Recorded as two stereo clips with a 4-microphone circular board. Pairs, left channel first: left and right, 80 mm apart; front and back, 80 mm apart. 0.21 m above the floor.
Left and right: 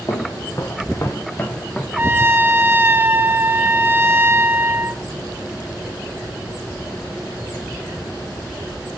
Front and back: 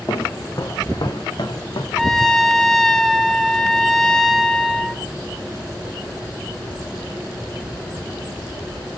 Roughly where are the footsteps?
Ahead left.